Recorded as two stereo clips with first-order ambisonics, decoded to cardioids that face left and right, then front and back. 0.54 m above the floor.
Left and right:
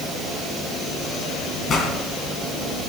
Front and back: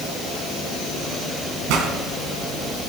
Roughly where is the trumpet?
No trumpet in this recording.